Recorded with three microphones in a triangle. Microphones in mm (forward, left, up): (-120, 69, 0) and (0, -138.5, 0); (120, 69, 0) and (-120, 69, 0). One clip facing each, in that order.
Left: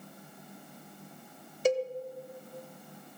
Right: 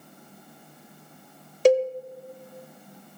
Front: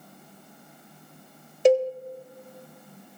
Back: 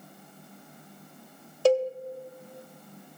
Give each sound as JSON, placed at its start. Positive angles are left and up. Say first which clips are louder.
{"t": 1.6, "sound": "a cowbell", "louder": "right 9 dB, front 3 dB", "azimuth_deg": -70, "distance_m": 0.8}